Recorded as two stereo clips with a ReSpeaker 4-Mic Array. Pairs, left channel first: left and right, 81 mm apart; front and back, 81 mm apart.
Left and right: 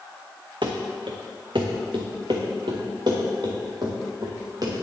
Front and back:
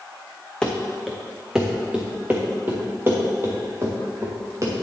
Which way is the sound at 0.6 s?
80° right.